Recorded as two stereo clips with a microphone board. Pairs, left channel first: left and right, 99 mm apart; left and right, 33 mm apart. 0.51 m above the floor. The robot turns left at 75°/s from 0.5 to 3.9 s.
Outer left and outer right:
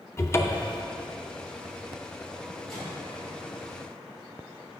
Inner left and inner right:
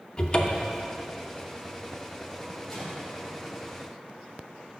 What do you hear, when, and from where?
0.2 s a cupboard door: 30° left (ahead or behind), 0.6 m; by 0.8 s 25° left (ahead or behind), 0.6 m
2.7 s a microwave: 5° left (ahead or behind), 2.5 m; by 3.1 s 30° left (ahead or behind), 2.5 m